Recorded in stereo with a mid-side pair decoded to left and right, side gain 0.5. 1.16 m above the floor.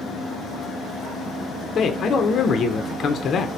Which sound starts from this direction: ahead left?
A man speaking, at 1.8 s.